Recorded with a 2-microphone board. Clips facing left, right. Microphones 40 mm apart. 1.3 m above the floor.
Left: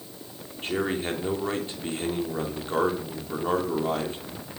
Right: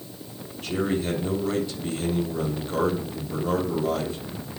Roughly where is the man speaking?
Left.